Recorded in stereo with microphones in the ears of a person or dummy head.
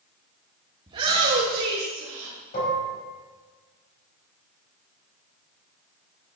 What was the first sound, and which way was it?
A shout, 25° right (ahead or behind).